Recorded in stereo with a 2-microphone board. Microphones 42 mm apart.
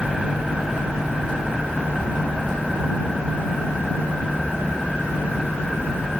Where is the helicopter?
20° right (ahead or behind).